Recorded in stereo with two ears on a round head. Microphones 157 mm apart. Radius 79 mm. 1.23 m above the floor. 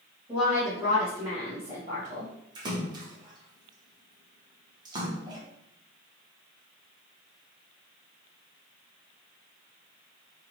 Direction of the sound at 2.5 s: 25° right (ahead or behind).